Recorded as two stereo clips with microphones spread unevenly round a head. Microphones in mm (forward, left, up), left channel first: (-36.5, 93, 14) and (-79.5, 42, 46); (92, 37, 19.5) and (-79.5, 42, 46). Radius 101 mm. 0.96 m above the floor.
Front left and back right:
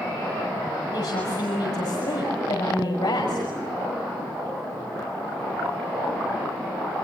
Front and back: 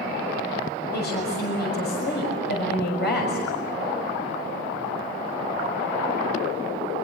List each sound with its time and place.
0.9 s a woman speaking: 25° left, 6 m